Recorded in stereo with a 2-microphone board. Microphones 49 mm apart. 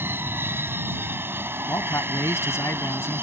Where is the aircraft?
50° right (ahead or behind).